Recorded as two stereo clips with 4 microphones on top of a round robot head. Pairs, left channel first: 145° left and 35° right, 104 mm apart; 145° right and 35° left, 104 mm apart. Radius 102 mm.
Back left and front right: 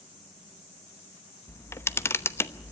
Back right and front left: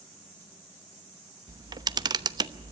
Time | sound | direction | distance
1.5 | a camera shutter | 80° left | 1.0 m